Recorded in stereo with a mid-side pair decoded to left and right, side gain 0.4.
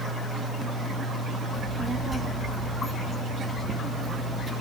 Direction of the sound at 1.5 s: 40° right.